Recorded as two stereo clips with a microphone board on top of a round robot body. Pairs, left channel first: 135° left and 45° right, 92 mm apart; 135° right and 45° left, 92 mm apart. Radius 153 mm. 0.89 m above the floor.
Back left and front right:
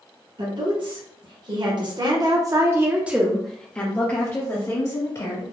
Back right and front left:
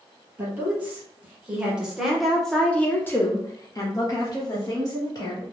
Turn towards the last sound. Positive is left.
turn(degrees=180)